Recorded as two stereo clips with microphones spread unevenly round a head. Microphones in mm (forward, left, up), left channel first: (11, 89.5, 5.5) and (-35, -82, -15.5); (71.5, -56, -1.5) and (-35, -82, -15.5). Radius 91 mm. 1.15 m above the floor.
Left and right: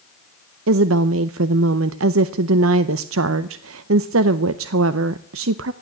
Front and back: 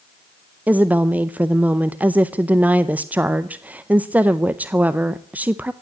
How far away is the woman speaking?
About 0.6 m.